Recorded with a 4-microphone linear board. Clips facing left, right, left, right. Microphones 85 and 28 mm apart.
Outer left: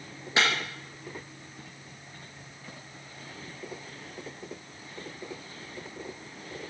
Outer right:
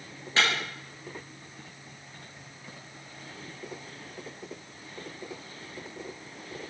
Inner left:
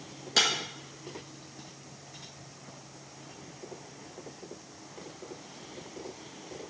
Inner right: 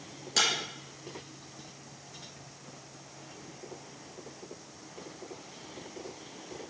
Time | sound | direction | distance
0.4 | breaking glass | 15° left (ahead or behind) | 3.5 m